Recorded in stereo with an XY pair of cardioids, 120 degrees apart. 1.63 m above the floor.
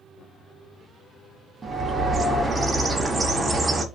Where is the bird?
20° right, 0.7 m.